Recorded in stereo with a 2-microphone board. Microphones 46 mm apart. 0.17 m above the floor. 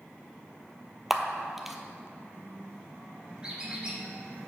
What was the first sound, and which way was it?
A camera shutter, 5° right (ahead or behind).